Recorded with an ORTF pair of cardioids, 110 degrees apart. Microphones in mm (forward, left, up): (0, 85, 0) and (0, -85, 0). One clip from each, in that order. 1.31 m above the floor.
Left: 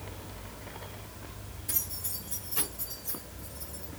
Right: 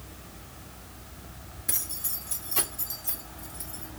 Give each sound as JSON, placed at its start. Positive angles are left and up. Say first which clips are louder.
{"t": 1.7, "sound": "keys jangling", "louder": "right 3 dB", "azimuth_deg": -45, "distance_m": 2.0}